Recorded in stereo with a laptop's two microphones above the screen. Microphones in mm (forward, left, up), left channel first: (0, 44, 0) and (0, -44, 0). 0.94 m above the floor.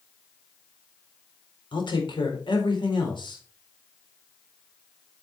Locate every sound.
1.7 s a man speaking: 75° left (ahead or behind), 4 m